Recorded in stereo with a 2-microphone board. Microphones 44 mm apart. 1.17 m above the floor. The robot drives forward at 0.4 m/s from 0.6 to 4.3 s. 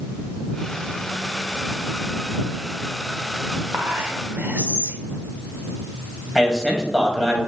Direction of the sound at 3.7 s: 45° right (ahead or behind).